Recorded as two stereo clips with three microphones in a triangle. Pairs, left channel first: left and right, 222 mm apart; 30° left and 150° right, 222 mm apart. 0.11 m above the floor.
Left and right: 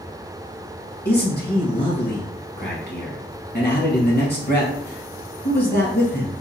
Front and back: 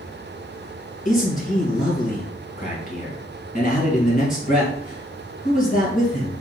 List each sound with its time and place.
1.1 s a man speaking: 70° left, 1.9 m